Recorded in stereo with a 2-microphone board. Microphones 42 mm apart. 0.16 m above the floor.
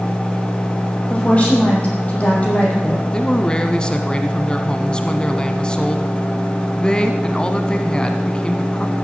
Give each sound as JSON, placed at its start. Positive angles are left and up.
{"t": 1.1, "sound": "a woman speaking", "side_deg": 30, "distance_m": 7.0}
{"t": 3.1, "sound": "a man speaking", "side_deg": 20, "distance_m": 1.2}